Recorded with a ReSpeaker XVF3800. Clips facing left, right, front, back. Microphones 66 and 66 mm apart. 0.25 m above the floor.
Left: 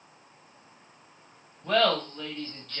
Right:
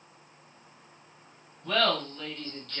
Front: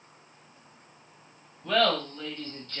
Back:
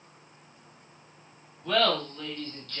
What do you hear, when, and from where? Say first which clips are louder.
1.6 s laughter: left 3 dB, front 1 dB; 75° left, 1.1 m; by 2.8 s 5° left, 1.0 m